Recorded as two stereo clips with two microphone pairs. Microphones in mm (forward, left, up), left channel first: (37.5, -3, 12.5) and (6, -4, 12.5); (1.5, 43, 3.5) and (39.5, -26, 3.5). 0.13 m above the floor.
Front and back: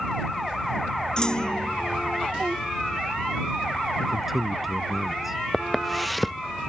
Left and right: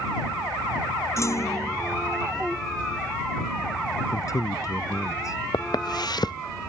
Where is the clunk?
65° left.